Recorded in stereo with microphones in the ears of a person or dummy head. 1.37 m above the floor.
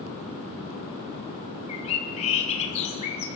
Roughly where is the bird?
Left.